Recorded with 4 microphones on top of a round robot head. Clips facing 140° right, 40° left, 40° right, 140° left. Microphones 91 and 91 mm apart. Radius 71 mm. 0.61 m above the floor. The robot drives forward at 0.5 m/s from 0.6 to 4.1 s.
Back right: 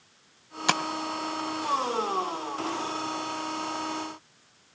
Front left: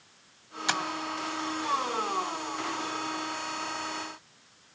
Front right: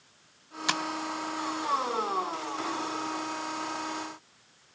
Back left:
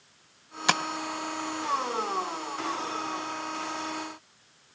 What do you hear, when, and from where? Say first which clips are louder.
0.7 s tapping: back right 4 dB, back left 5 dB; 175° right, 0.6 m